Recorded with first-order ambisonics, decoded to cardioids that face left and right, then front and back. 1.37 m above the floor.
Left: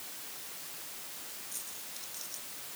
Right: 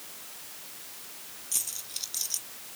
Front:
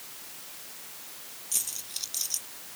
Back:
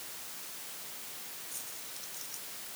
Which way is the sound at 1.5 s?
40° right.